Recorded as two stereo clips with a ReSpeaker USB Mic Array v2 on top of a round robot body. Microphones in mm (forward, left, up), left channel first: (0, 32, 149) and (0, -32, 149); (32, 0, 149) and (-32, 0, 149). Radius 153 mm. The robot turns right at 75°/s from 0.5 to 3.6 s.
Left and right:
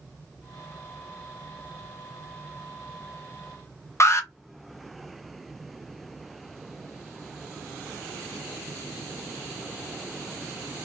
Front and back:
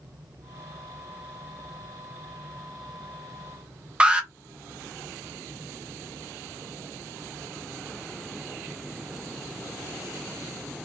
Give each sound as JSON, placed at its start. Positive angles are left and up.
{"t": 4.0, "sound": "an alarm", "azimuth_deg": 110, "distance_m": 0.7}